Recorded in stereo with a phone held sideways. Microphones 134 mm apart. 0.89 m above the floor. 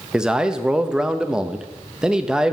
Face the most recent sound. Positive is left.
turn(degrees=-5)  # may be behind; listen again after turning